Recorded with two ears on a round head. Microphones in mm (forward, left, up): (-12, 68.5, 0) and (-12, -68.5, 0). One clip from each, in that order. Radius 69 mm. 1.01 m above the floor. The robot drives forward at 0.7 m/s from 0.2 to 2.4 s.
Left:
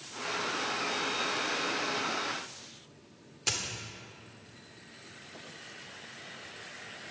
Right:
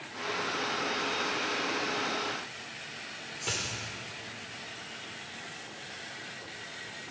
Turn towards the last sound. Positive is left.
turn(degrees=35)  # may be behind; listen again after turning